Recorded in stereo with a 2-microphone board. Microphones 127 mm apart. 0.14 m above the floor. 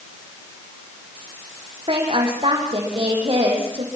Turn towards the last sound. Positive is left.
turn(degrees=-50)  # may be behind; listen again after turning